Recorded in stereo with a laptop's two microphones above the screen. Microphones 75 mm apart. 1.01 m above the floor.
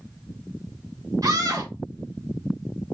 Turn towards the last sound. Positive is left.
turn(degrees=-55)  # may be behind; listen again after turning